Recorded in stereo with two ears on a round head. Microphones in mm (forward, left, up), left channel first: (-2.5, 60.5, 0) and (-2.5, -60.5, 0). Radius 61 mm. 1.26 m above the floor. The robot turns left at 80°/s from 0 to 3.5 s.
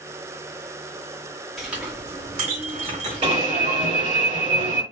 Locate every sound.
1.6 s a clink: straight ahead, 2.5 m; by 4.0 s 155° right, 2.5 m
3.2 s an alarm: 40° right (ahead or behind), 2.5 m; by 4.8 s 60° right (ahead or behind), 2.5 m